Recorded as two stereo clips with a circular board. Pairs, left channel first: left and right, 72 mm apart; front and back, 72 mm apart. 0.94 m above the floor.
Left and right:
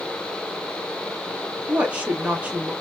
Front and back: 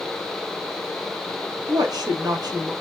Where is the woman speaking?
160° right, 0.8 m.